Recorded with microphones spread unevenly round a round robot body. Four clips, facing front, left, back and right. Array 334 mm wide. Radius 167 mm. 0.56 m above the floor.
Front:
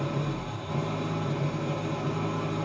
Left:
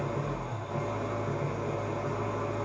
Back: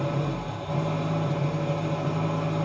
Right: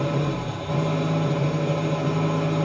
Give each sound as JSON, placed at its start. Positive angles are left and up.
{"t": 0.0, "sound": "an engine running", "azimuth_deg": -80, "distance_m": 5.5}